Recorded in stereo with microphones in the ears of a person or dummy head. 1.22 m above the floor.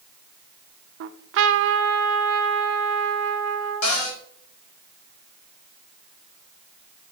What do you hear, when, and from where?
1.0 s a trumpet: 65° right (ahead or behind), 0.6 m
3.8 s a cupboard door: 75° left (ahead or behind), 2 m